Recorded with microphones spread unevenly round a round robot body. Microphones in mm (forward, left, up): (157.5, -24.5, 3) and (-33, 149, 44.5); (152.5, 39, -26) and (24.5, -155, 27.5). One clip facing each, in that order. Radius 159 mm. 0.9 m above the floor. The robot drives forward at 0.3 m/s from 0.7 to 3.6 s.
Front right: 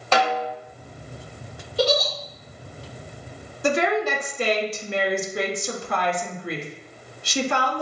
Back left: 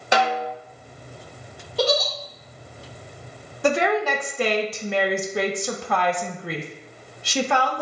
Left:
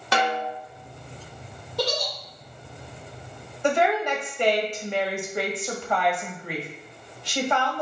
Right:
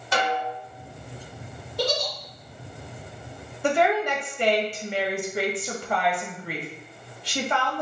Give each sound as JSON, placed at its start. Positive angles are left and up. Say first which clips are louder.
{"t": 0.1, "sound": "a snare drum", "louder": "even, left 1 dB", "azimuth_deg": 55, "distance_m": 1.2}
{"t": 1.8, "sound": "a giggle", "louder": "front right 1 dB, right 1 dB", "azimuth_deg": 95, "distance_m": 1.9}
{"t": 3.6, "sound": "a woman speaking", "louder": "back left 1 dB, even", "azimuth_deg": 145, "distance_m": 0.8}